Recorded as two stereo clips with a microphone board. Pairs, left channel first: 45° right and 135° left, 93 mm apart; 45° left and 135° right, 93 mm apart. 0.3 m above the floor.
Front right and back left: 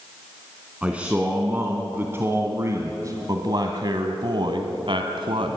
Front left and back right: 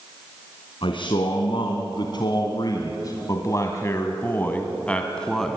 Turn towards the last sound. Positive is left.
turn(degrees=130)